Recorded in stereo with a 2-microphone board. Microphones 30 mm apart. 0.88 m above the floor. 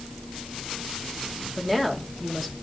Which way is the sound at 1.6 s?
5° right (ahead or behind).